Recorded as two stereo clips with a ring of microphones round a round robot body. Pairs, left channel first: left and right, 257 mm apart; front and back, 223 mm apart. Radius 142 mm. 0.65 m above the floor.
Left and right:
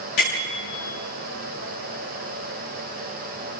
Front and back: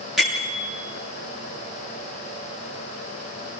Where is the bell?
90° left, 8.5 m.